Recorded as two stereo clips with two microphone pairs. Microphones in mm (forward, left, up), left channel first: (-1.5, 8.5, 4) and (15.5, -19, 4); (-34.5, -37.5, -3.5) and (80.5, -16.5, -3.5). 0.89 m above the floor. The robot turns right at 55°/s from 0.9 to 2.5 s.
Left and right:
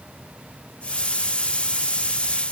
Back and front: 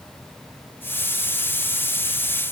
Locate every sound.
Only background noise.